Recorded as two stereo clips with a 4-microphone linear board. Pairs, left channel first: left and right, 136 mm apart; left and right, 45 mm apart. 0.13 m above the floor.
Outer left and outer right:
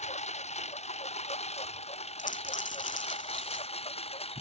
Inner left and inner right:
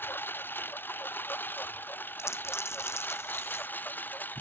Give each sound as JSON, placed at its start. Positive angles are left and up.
{"t": 0.0, "sound": "a lawn mower", "side_deg": 55}
{"t": 2.2, "sound": "a dropped coin", "side_deg": 80}